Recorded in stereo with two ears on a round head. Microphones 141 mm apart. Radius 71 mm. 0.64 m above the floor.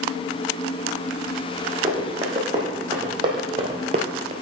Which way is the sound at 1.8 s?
20° right (ahead or behind).